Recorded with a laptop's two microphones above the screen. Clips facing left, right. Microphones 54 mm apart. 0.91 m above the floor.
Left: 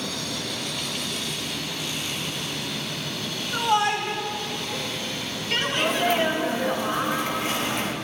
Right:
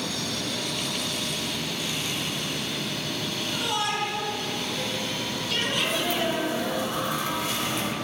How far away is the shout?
About 2.5 m.